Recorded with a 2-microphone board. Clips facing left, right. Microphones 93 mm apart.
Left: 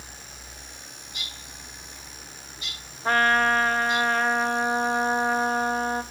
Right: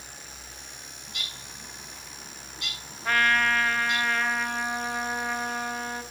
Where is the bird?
70° right (ahead or behind), 5.5 m.